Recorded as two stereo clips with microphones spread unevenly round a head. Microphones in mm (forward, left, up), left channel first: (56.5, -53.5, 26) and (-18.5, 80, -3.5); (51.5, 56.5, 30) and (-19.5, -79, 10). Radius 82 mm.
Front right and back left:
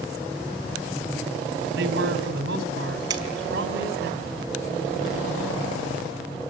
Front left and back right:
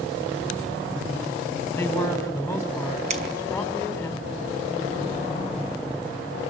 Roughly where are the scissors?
Behind.